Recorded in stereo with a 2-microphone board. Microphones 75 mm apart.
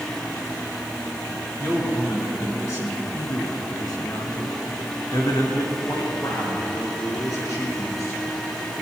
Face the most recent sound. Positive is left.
turn(degrees=45)  # may be behind; listen again after turning